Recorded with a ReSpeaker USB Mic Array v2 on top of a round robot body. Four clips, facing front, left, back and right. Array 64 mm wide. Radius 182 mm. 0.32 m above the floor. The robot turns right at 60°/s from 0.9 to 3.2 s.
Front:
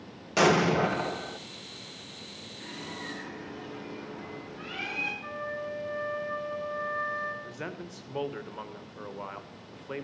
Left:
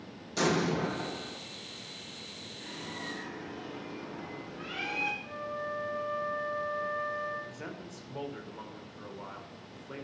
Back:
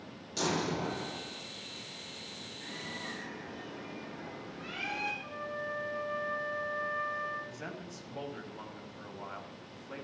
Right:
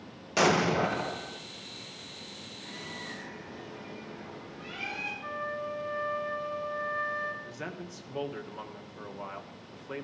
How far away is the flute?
About 3.5 m.